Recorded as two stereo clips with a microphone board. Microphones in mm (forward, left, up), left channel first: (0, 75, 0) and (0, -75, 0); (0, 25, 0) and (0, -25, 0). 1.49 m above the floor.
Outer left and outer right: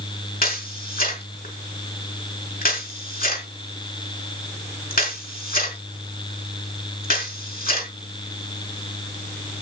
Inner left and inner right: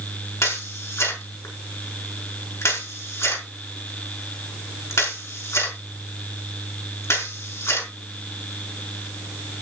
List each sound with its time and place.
0.4 s a camera shutter: 75° left (ahead or behind), 4.5 m